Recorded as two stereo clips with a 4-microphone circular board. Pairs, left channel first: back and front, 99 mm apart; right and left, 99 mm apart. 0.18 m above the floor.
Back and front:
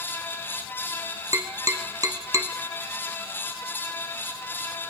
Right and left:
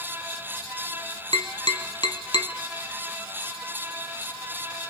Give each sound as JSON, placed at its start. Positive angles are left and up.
{"t": 1.3, "sound": "tapping", "azimuth_deg": -55, "distance_m": 0.9}